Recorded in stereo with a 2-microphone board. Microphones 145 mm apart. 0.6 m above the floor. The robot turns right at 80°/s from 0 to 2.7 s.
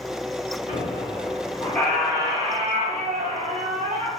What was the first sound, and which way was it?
A squeak, 80° left.